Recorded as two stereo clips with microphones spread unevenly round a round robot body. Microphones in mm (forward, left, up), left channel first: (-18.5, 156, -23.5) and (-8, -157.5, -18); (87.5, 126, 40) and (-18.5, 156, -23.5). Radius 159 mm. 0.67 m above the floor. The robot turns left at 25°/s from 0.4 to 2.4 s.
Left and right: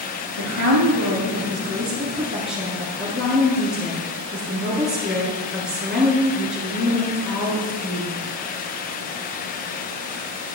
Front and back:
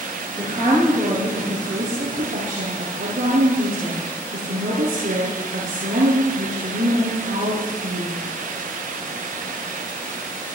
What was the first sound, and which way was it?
A woman speaking, 125° right.